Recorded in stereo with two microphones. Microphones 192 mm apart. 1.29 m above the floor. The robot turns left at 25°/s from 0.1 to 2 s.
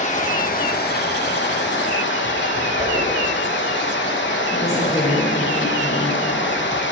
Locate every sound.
0.0 s running water: 140° left, 0.9 m; by 6.9 s 90° left, 0.9 m
2.8 s a whoosh: 65° right (ahead or behind), 2.5 m
4.5 s a woman speaking: 35° left (ahead or behind), 2 m